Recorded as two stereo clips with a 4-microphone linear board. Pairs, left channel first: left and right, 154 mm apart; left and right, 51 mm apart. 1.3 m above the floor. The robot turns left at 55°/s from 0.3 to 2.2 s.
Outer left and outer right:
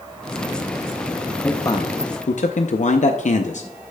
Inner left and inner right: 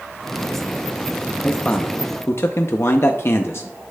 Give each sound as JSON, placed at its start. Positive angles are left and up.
{"t": 1.4, "sound": "a man speaking", "azimuth_deg": 170, "distance_m": 0.5}